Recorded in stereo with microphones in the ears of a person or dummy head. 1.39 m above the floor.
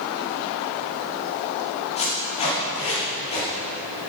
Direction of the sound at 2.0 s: 35° left (ahead or behind).